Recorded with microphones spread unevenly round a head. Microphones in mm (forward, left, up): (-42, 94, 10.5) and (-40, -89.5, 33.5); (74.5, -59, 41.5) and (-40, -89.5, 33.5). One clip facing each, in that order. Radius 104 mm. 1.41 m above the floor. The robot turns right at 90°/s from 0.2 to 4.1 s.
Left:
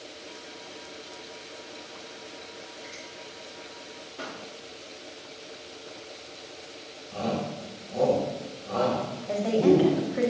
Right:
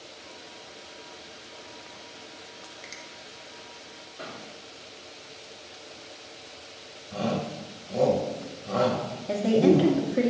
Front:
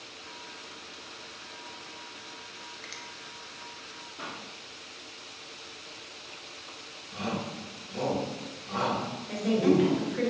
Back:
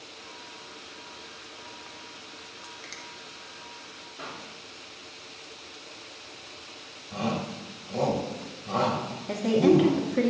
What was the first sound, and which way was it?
A finger snap, 85° right.